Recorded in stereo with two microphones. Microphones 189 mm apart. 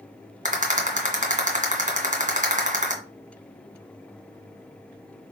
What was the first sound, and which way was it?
A rattle, 40° right (ahead or behind).